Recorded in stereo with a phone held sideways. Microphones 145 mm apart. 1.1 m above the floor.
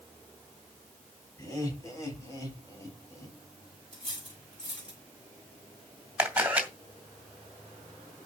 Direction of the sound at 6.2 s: 10° right (ahead or behind).